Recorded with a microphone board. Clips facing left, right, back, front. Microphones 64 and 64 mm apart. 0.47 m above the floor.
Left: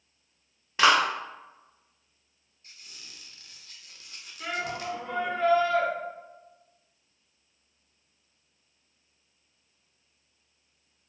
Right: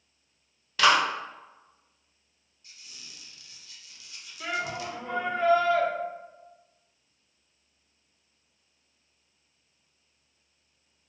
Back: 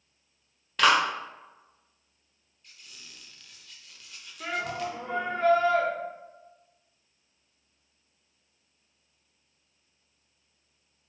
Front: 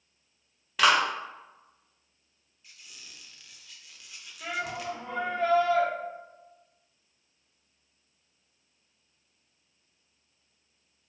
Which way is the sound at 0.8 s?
80° left.